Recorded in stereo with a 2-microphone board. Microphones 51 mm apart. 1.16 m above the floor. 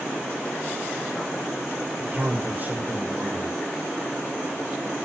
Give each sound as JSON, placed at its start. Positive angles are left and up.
{"t": 2.0, "sound": "a man speaking", "side_deg": -45, "distance_m": 5.0}